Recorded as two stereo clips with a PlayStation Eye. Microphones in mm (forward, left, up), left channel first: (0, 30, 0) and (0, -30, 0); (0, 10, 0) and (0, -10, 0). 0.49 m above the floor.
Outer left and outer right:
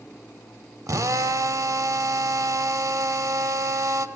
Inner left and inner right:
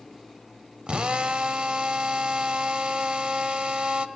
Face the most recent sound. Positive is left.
turn(degrees=-65)  # may be behind; listen again after turning